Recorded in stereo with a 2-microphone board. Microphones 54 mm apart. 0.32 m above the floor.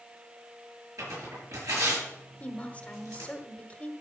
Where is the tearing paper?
75° right (ahead or behind), 6.5 m.